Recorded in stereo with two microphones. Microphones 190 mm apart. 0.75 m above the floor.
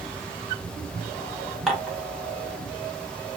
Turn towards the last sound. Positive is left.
turn(degrees=0)  # may be behind; listen again after turning